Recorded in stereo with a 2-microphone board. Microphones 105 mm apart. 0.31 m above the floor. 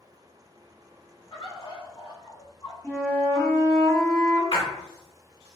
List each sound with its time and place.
1.3 s a bird: 50° left (ahead or behind), 0.7 m
2.8 s a flute: 20° right (ahead or behind), 1.7 m
4.5 s a splash: 55° left (ahead or behind), 0.8 m